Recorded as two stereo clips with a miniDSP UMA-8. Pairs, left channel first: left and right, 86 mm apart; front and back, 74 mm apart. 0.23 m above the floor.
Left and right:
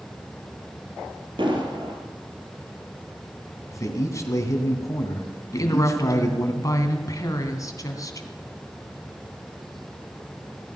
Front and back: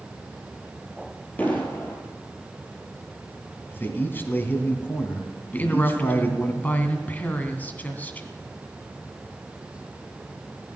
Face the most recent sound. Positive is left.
turn(degrees=60)